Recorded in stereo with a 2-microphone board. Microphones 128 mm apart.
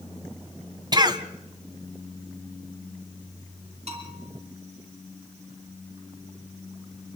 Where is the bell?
55° right (ahead or behind), 6 m.